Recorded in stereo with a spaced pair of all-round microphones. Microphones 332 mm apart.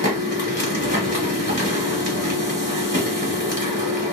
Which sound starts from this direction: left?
A machine running, at 0.0 s.